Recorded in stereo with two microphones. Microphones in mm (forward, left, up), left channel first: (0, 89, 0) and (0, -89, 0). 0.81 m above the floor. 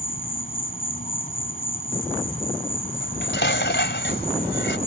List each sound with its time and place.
0.0 s an insect: 50° left (ahead or behind)
3.0 s dishes clattering: 85° left